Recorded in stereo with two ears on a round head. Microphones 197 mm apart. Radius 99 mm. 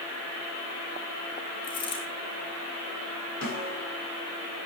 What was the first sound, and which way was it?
A dropped coin, 20° left (ahead or behind).